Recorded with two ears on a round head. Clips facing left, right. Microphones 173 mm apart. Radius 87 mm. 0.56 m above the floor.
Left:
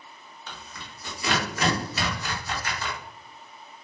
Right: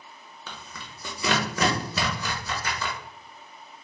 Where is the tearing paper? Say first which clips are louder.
Right 1 dB; 70° right (ahead or behind), 0.7 m.